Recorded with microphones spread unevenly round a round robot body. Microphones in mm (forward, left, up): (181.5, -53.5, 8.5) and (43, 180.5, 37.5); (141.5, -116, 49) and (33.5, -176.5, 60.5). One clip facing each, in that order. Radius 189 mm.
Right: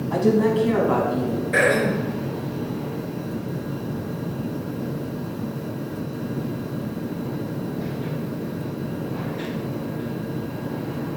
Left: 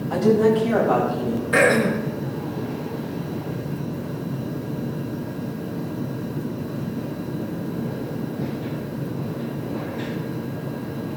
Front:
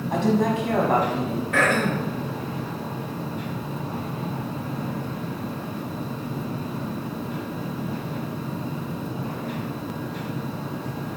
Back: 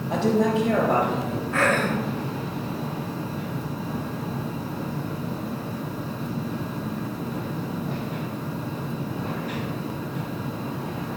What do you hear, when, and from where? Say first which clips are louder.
0.1 s a woman speaking: left 2 dB, back 1 dB; 170° left, 4 m; by 1.4 s 155° left, 4 m
1.5 s throat clearing: left 3 dB, even; 125° left, 4 m